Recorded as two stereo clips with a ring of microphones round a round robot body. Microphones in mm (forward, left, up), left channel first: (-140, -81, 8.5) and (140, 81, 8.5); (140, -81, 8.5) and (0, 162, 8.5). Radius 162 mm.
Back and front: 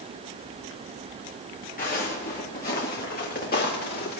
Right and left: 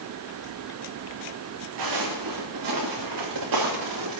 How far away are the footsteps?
About 4 m.